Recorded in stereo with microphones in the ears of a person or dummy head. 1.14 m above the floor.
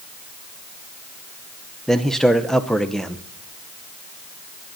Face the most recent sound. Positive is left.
turn(degrees=0)  # may be behind; listen again after turning